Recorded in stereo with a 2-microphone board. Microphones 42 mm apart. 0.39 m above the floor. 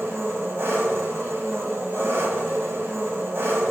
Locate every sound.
0.0 s an engine running: 70° right (ahead or behind), 1.5 m